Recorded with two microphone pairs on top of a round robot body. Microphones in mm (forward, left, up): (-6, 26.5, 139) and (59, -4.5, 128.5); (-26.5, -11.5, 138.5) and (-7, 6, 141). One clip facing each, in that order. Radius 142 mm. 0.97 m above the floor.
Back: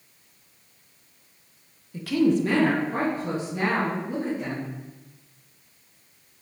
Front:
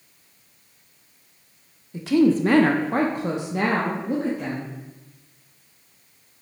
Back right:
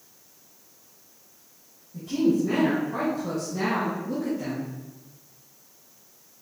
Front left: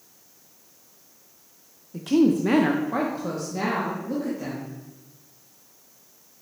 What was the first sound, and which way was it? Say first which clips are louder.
A woman speaking: front 3 dB, front left 3 dB; 45° left.